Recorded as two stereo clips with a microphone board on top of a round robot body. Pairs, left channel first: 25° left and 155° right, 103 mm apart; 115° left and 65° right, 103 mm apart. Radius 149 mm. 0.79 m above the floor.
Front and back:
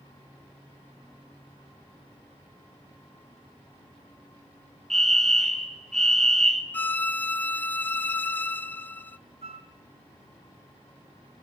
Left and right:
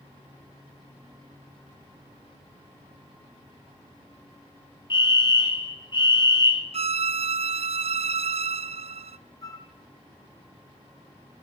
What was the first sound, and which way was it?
A fire alarm, 105° left.